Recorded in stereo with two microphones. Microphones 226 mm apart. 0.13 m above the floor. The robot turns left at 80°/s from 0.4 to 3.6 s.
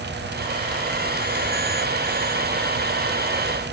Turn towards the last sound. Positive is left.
No sound to turn to.